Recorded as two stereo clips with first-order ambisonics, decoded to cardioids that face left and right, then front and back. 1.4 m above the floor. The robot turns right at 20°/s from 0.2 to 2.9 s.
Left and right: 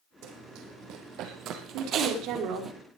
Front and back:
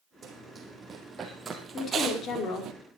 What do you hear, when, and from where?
0.2 s running footsteps: 115° right, 3 m; by 2.7 s 155° right, 1.9 m
1.7 s a woman speaking: 65° right, 4.5 m; by 2.7 s 45° right, 4.5 m